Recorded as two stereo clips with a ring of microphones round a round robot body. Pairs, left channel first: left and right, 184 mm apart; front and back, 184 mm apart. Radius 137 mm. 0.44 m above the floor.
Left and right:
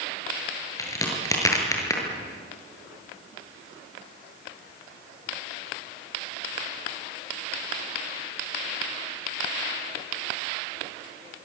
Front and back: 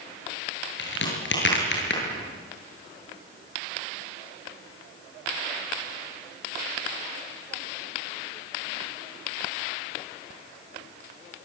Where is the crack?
15° left, 7.5 m.